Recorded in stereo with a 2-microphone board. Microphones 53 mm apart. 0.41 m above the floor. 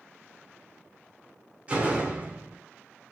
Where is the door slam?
25° right (ahead or behind), 0.8 m.